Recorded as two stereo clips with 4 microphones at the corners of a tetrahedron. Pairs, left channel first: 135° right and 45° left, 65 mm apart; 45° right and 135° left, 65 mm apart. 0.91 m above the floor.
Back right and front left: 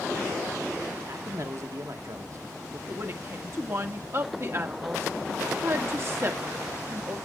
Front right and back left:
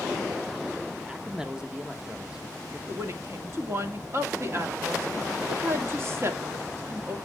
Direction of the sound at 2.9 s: 90° left.